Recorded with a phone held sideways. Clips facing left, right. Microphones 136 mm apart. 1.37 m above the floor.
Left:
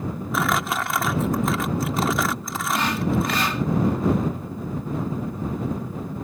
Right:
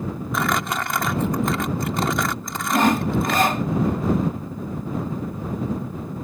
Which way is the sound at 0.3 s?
Centre (ahead or behind).